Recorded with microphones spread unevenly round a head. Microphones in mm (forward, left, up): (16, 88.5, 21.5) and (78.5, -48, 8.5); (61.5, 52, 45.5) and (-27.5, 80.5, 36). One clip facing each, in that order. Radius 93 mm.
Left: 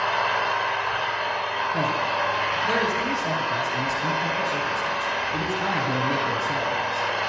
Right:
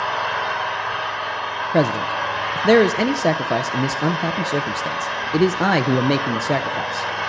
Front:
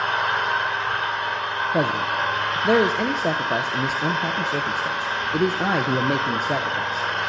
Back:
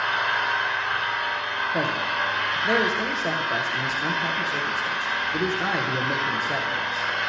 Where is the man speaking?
80° right, 0.5 m.